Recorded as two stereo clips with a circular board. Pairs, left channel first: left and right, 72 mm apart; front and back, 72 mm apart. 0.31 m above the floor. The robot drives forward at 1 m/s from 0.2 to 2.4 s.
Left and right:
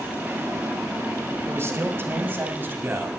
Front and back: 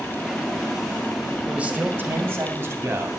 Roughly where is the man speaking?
Behind right.